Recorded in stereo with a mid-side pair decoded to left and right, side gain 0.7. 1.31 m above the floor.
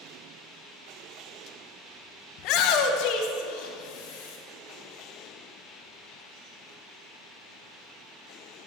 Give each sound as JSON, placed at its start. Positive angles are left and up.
{"t": 2.4, "sound": "a shout", "azimuth_deg": 60, "distance_m": 0.7}